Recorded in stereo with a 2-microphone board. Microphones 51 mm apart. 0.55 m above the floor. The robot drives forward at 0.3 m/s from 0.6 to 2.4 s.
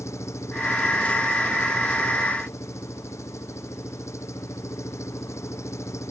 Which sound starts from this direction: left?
An engine running, at 0.0 s.